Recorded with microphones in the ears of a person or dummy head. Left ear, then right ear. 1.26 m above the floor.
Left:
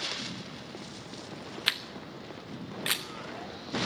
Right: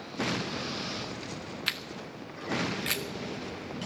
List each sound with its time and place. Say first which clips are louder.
1.7 s a camera shutter: left 3 dB; 20° left (ahead or behind), 0.6 m